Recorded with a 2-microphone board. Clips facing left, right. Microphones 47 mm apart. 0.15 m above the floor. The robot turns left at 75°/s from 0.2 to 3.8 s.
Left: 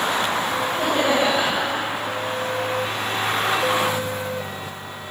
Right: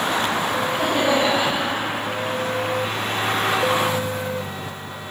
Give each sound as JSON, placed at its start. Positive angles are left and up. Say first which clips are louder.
{"t": 0.7, "sound": "laughter", "louder": "even", "azimuth_deg": 175, "distance_m": 5.5}